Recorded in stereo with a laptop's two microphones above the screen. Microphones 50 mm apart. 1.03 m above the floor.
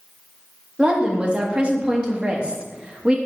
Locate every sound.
0.8 s a woman speaking: 20° right (ahead or behind), 1.4 m